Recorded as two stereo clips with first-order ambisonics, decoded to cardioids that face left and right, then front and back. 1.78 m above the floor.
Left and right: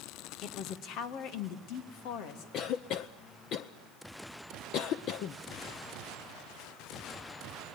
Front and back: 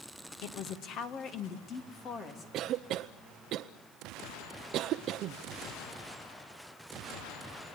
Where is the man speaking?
35° left, 1.4 m; by 2.4 s 65° left, 3.5 m.